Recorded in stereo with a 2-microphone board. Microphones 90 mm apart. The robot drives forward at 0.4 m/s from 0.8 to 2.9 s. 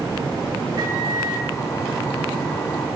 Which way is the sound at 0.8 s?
40° right (ahead or behind).